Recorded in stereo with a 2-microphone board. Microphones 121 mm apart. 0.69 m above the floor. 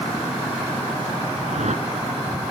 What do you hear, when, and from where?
1.5 s a whoosh: 70° right (ahead or behind)